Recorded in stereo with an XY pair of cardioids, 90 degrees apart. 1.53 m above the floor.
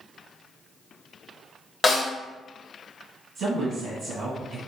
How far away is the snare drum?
About 1.1 m.